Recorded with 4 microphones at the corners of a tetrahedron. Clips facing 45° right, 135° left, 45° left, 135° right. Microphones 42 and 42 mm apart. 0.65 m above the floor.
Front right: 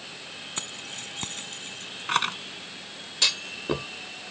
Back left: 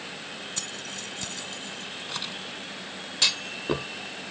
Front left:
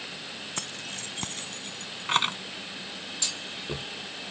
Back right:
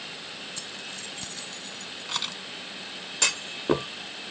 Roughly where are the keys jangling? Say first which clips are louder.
Back left 1 dB, front left 1 dB; ahead.